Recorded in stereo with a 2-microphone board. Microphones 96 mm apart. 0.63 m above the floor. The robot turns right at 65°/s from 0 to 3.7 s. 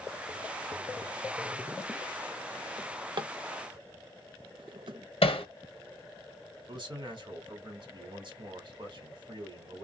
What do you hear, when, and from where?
2.8 s a drawer: 35° right (ahead or behind), 0.6 m; by 5.0 s 60° right (ahead or behind), 0.6 m
5.2 s hammering: 75° left (ahead or behind), 0.9 m
6.7 s a man speaking: 55° right (ahead or behind), 1.8 m